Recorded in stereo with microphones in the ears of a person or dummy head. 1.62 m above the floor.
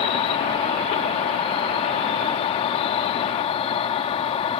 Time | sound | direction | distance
0.0 | an insect | 35° left (ahead or behind) | ?